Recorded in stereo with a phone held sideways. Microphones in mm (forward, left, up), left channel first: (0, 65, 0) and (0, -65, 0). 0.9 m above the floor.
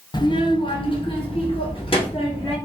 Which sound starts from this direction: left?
A child speaking, at 0.1 s.